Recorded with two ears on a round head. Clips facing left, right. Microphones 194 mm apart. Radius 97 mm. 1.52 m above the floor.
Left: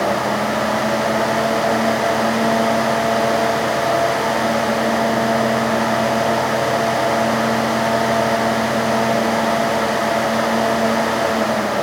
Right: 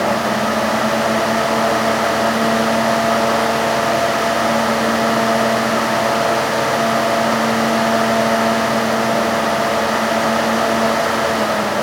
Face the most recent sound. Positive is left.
No sound to turn to.